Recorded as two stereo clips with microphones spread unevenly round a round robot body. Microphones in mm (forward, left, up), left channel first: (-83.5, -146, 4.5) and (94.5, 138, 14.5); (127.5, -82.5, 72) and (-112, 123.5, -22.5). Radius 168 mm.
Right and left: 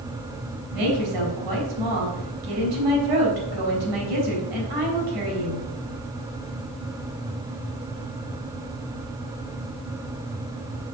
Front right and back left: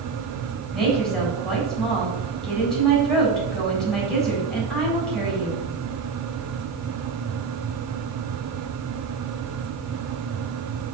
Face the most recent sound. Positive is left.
turn(degrees=55)